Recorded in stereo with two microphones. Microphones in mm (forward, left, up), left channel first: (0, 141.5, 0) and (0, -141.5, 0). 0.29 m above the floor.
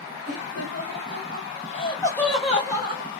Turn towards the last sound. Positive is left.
turn(degrees=-25)  # may be behind; listen again after turning